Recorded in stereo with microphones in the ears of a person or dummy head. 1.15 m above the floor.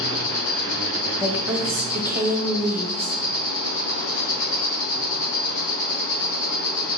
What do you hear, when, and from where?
0.0 s an insect: 40° left (ahead or behind), 1.0 m
1.2 s a woman speaking: 15° right (ahead or behind), 0.8 m